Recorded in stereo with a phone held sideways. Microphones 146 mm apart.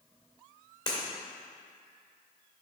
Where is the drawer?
No drawer in this recording.